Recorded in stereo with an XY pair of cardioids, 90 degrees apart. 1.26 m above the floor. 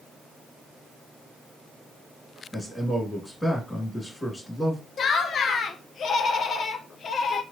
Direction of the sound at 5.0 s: 65° left.